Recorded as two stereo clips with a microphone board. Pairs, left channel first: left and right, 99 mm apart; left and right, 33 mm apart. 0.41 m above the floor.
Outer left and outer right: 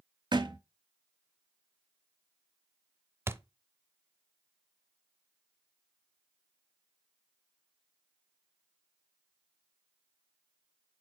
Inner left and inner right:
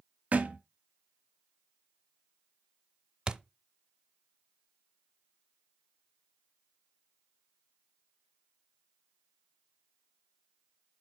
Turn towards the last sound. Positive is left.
turn(degrees=-25)  # may be behind; listen again after turning